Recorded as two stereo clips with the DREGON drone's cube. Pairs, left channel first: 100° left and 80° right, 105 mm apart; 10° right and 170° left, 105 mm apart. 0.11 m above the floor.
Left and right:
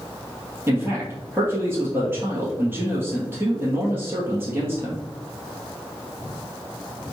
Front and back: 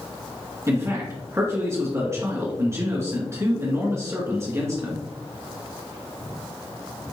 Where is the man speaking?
135° right, 1.9 m.